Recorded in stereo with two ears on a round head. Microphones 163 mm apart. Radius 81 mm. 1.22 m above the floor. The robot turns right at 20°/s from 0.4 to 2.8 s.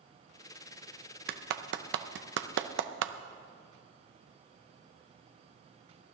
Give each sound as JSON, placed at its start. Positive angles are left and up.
{"t": 1.3, "sound": "a clap", "side_deg": -55, "distance_m": 0.6}